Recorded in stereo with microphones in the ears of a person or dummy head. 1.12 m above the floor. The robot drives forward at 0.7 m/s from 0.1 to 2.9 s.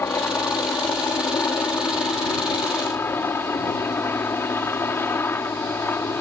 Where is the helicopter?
15° left (ahead or behind); by 6.2 s 10° left (ahead or behind).